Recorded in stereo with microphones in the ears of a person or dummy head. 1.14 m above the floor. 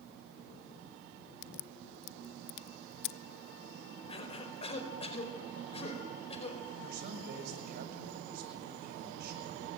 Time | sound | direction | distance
1.4 | a crack | 60° left (ahead or behind) | 1.0 m
4.1 | a cough | 30° left (ahead or behind) | 5 m
6.8 | a man speaking | 55° right (ahead or behind) | 7 m